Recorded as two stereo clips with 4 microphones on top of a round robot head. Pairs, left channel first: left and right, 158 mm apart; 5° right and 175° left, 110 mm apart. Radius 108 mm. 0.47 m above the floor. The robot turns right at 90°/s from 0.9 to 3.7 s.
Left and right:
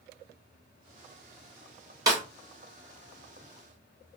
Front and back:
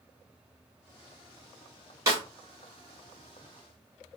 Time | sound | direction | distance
2.1 | a snare drum | 145° right | 1.5 m